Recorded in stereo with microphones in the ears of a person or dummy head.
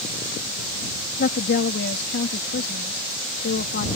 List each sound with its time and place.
1.2 s a woman speaking: 60° left (ahead or behind)